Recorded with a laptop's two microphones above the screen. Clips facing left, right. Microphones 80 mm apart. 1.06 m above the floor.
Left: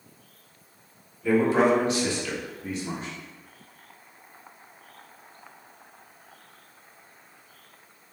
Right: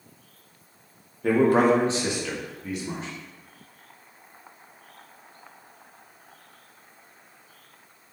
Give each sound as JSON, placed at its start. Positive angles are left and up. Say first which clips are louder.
{"t": 1.2, "sound": "a man speaking", "louder": "right 2 dB", "side_deg": -60, "distance_m": 1.0}